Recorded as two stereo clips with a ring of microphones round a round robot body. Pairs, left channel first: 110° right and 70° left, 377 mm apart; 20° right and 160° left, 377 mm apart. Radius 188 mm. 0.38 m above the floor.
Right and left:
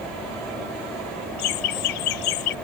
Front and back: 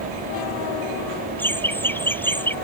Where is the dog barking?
No dog barking in this recording.